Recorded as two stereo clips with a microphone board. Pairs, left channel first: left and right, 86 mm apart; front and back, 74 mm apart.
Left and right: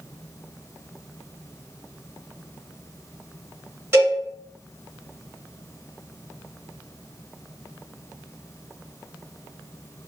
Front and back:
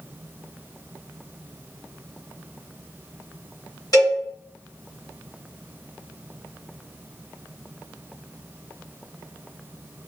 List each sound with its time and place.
3.9 s a cowbell: 30° right, 1.3 m